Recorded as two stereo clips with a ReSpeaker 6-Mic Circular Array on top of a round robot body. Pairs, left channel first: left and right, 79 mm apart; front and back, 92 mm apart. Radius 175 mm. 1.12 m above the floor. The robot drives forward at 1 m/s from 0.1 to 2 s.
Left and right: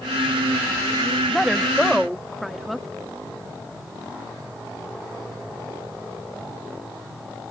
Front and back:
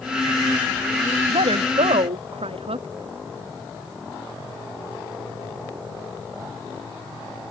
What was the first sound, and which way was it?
A woman speaking, straight behind.